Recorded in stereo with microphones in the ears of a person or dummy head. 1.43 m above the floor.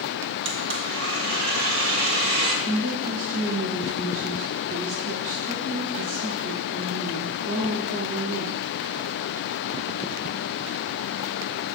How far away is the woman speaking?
About 1.4 m.